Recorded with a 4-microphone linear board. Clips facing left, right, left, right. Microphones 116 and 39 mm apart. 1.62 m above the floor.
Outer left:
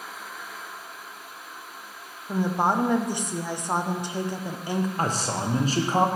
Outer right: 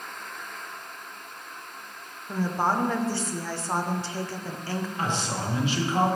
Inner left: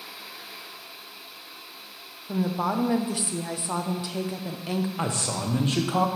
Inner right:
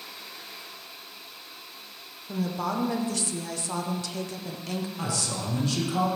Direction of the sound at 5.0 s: 40° left (ahead or behind).